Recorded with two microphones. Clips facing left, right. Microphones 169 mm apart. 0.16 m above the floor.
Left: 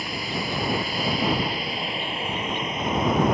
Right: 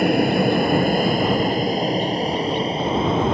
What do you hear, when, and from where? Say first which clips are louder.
0.0 s an aircraft: right 14 dB; 60° right (ahead or behind); by 3.4 s 25° right (ahead or behind)